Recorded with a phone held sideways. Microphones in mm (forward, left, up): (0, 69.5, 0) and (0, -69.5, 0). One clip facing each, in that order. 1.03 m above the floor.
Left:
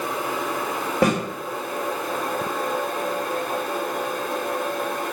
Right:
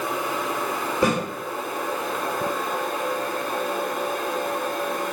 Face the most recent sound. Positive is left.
turn(degrees=70)  # may be behind; listen again after turning